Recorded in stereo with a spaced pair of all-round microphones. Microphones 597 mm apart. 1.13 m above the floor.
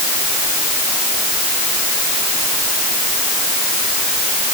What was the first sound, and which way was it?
Only background noise.